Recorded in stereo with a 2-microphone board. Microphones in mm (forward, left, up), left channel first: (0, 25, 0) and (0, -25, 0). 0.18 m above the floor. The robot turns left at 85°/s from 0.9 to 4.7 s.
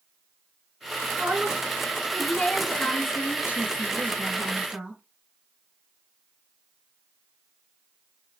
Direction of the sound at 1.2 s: 90° right.